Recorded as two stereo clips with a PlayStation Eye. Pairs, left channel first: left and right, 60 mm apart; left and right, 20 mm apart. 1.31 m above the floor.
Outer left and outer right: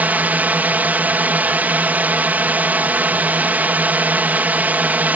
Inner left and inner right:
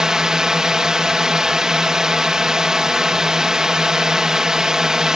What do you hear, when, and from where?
0.0 s a drone: 30° right (ahead or behind)